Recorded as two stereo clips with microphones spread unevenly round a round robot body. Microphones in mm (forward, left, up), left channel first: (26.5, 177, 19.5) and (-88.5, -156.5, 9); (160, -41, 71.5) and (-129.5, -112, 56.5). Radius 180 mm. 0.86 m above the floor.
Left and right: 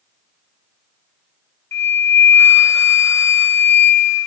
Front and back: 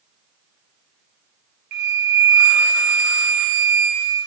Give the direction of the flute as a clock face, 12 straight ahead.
7 o'clock.